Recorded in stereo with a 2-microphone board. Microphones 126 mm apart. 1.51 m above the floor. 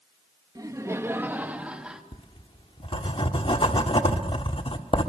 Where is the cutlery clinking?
No cutlery clinking in this recording.